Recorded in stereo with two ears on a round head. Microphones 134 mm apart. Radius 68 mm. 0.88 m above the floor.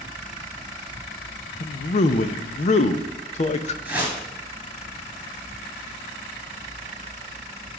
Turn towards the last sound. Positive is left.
turn(degrees=-5)  # may be behind; listen again after turning